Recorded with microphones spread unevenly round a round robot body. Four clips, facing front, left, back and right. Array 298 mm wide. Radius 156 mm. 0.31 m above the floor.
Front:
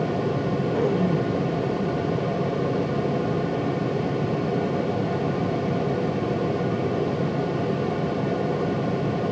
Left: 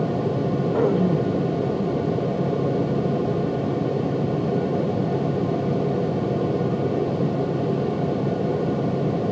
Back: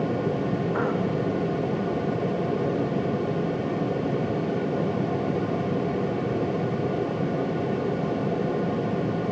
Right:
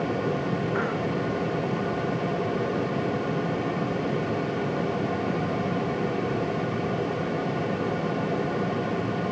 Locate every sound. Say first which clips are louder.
0.7 s throat clearing: left 7 dB, front 3 dB; 75° left